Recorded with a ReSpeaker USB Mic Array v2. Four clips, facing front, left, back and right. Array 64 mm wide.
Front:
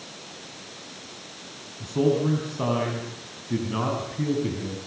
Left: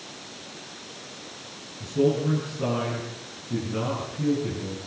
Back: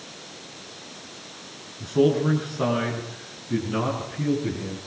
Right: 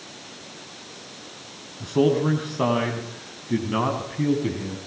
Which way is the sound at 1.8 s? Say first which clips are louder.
Right 3 dB, back 2 dB; 100° right.